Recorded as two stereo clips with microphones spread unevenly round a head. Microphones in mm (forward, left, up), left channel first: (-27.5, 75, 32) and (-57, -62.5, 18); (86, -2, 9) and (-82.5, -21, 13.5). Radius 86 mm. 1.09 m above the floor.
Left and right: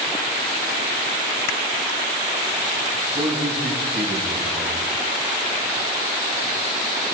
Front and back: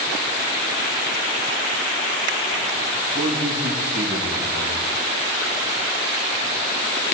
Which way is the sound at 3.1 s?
165° left.